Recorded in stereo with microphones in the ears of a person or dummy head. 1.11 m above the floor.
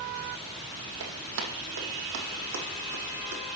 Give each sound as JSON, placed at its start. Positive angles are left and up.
{"t": 1.0, "sound": "running footsteps", "side_deg": -60, "distance_m": 2.5}